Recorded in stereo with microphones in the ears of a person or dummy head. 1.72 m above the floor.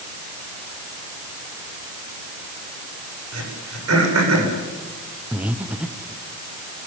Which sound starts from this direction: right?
Throat clearing, at 3.3 s.